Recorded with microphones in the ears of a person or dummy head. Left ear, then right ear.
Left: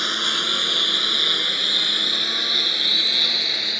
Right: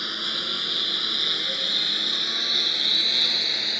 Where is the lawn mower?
35° left (ahead or behind); by 3.8 s centre (ahead or behind).